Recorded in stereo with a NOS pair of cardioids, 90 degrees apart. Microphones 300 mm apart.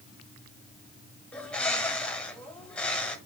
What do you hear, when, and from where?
1.3 s a bird: 5° left, 1.2 m